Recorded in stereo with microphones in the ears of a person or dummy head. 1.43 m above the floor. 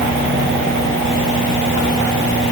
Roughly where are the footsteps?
No footsteps in this recording.